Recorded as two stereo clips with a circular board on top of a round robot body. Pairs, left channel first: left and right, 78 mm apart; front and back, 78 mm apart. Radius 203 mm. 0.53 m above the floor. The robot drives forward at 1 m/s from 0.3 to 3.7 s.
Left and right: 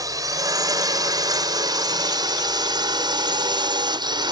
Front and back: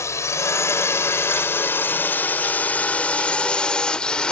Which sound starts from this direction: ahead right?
A drone, at 0.0 s.